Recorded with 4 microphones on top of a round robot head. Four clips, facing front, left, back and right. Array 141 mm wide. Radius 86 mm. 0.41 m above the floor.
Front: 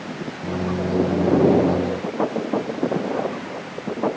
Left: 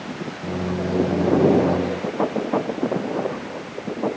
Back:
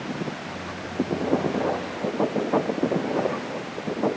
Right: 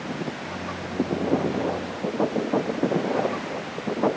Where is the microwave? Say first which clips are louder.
Left 7 dB, front 10 dB; 40° left.